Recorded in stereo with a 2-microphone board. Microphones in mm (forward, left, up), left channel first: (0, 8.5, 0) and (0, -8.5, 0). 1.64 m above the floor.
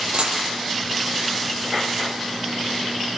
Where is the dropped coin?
55° right (ahead or behind), 9.5 m.